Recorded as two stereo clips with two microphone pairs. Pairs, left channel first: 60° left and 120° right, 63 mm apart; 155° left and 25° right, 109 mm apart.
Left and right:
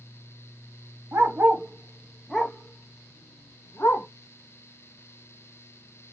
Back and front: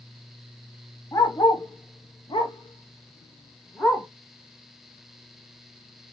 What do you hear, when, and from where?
1.1 s a dog barking: 155° right, 0.8 m; by 4.1 s 85° left, 1.1 m